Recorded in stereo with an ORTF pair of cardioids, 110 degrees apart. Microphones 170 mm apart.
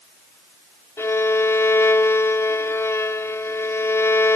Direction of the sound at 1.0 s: 15° left.